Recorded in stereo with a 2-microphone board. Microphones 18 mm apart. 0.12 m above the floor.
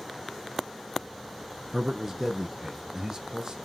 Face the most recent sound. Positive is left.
turn(degrees=-45)  # may be behind; listen again after turning